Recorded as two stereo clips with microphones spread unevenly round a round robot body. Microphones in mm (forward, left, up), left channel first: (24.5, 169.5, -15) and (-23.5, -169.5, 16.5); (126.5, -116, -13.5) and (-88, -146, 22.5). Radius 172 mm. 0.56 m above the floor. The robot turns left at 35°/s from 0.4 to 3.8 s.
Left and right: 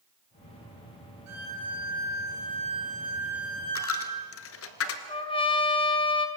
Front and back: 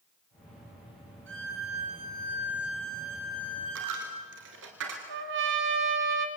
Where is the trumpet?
150° left, 1.6 m.